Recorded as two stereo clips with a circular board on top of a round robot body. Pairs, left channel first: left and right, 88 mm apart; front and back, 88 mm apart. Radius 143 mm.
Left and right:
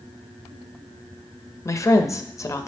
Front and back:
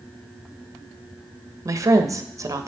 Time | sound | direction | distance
1.6 | a woman speaking | 135° left | 0.8 m